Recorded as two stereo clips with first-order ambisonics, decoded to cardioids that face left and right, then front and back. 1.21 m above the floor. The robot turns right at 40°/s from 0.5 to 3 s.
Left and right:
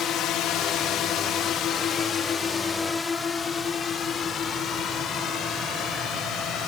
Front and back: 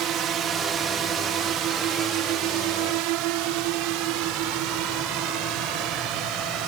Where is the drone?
140° left; by 6.7 s 145° left.